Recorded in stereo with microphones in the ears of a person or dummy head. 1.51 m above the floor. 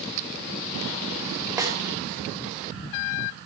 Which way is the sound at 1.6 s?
20° right (ahead or behind).